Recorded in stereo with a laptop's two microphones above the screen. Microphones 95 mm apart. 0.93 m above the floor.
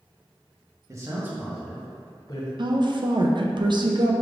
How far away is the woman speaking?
About 0.5 m.